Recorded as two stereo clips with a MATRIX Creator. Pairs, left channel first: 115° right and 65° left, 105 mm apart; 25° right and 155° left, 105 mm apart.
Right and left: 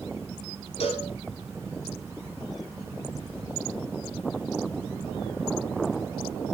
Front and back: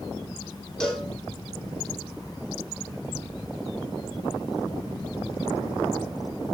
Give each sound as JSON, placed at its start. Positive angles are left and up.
{"t": 0.8, "sound": "a cowbell", "azimuth_deg": -105, "distance_m": 5.0}